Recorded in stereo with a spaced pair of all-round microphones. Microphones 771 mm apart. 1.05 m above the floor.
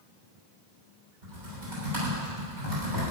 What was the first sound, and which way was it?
Typing on a keyboard, 80° right.